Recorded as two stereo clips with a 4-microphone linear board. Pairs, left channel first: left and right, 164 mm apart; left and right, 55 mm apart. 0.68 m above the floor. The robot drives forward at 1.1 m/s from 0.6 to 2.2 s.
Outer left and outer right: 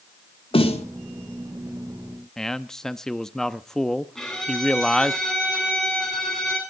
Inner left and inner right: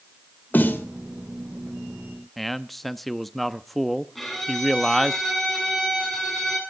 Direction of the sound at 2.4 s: 5° left (ahead or behind).